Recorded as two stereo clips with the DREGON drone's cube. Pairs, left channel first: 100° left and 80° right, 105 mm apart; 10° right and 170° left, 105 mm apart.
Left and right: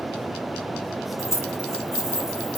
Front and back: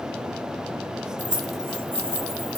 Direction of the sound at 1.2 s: 110° left.